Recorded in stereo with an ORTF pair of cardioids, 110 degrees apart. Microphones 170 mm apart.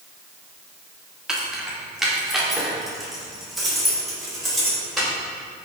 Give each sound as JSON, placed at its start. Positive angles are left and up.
{"t": 1.3, "sound": "keys jangling", "azimuth_deg": -5, "distance_m": 2.5}